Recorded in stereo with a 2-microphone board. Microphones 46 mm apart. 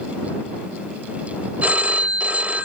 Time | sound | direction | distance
1.6 | a phone ringing | 35° right (ahead or behind) | ?